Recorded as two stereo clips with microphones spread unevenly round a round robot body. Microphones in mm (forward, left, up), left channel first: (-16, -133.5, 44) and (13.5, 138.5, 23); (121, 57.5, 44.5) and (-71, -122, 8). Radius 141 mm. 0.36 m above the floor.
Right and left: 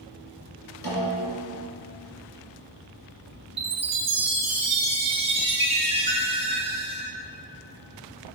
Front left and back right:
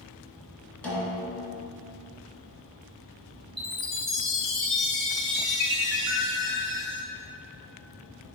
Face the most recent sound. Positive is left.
turn(degrees=140)